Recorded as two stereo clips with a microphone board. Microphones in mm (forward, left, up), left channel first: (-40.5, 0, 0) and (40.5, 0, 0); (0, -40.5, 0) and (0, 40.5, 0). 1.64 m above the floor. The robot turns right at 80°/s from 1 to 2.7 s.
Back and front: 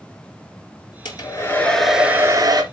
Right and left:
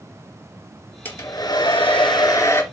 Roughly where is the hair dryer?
Behind right.